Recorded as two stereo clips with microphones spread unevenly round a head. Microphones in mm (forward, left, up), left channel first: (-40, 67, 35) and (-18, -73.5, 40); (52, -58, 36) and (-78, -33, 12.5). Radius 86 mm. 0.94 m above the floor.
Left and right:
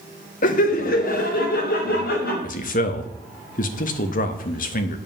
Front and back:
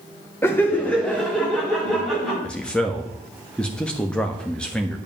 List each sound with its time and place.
0.4 s laughter: 65° left, 1.1 m; by 2.3 s 80° left, 4 m
2.4 s a man speaking: 75° left, 1.1 m